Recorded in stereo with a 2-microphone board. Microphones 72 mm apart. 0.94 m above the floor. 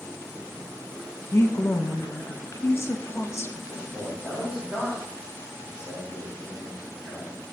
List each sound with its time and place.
1.3 s a woman speaking: 40° left (ahead or behind), 0.6 m
3.7 s a man speaking: 10° right (ahead or behind), 2.5 m